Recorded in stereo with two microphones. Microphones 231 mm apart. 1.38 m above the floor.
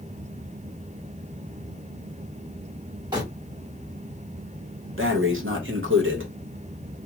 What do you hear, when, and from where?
3.1 s crumpling: 15° right (ahead or behind), 2 m
5.0 s breathing: 55° right (ahead or behind), 0.9 m